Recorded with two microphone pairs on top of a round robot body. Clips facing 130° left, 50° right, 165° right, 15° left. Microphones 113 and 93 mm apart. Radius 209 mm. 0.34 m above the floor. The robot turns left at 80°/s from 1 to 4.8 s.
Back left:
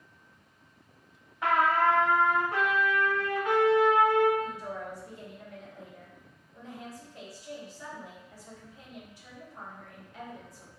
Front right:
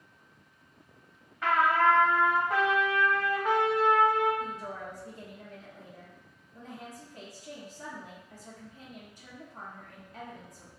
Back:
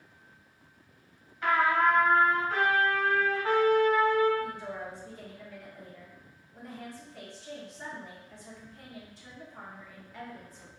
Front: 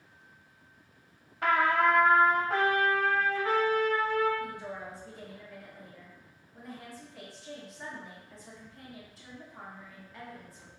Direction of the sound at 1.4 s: 60° left.